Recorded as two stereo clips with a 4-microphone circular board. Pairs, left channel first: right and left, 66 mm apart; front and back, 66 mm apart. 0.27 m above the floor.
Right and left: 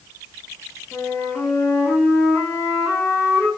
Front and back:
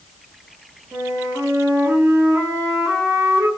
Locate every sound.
0.9 s a flute: 135° right, 1.1 m